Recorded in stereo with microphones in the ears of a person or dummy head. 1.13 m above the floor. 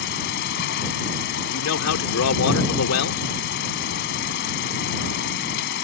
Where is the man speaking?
80° left.